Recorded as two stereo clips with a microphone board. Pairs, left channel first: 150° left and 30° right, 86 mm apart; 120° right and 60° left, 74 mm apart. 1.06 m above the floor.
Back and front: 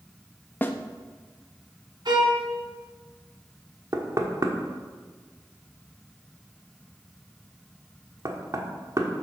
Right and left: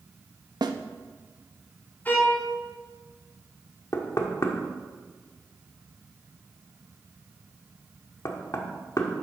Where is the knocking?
75° right, 1.4 m.